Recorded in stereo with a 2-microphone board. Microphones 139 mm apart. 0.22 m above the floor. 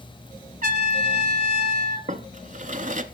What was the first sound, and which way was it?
A trumpet, 65° right (ahead or behind).